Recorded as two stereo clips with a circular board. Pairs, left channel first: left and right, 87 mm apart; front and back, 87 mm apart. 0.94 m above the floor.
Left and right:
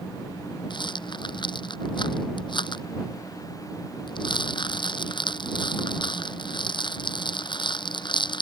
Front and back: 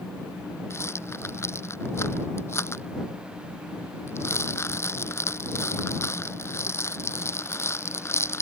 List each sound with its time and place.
0.7 s a rattle: 60° left